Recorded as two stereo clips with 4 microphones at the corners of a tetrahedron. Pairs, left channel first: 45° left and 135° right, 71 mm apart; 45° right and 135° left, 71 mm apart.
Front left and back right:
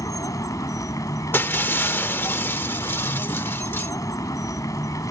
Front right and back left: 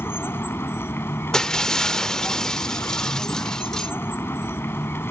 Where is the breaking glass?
30° left.